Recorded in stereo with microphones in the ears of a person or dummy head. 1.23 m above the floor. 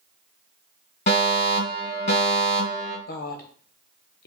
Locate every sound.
1.1 s a fire alarm: 30° left (ahead or behind), 1.9 m
3.1 s a woman speaking: 45° left (ahead or behind), 0.8 m